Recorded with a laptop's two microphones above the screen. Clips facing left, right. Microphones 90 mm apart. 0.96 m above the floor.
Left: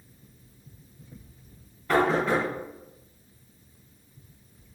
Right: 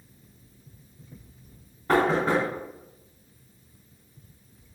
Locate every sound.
1.9 s knocking: 40° right (ahead or behind), 1.9 m